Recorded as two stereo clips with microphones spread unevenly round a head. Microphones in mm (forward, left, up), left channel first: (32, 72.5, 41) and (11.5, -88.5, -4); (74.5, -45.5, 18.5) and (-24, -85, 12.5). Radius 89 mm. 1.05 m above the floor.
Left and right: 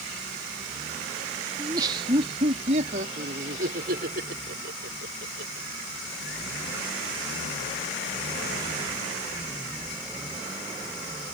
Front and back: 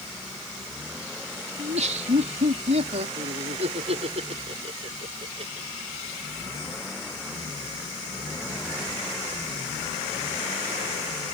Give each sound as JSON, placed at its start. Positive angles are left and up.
{"t": 1.6, "sound": "laughter", "azimuth_deg": -165}